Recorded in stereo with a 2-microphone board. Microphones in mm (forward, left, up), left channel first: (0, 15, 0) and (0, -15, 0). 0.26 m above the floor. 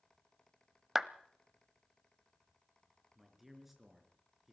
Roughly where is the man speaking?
Centre.